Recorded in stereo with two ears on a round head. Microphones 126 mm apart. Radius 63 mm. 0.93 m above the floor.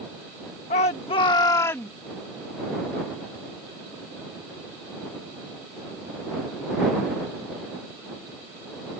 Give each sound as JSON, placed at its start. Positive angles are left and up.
{"t": 0.7, "sound": "a shout", "side_deg": 50}